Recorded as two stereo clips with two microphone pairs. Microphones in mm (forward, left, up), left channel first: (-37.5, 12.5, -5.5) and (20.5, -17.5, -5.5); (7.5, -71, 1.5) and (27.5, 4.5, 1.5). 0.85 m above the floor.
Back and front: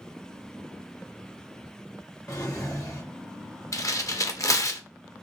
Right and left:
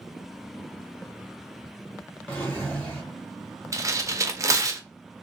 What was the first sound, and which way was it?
A drawer, straight behind.